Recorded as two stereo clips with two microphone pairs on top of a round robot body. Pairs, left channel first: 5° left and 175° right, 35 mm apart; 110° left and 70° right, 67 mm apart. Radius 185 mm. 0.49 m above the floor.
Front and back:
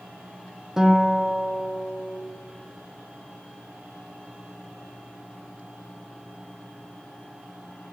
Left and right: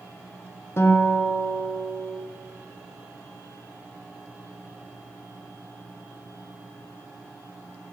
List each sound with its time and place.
0.8 s a guitar: 120° left, 1.1 m